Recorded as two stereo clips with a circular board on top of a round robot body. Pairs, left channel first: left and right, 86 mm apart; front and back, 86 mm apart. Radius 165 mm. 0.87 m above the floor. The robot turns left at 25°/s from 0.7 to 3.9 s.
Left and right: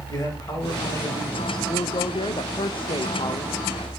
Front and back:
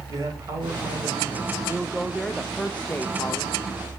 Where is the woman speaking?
100° left, 0.8 m; by 3.6 s 55° left, 0.8 m.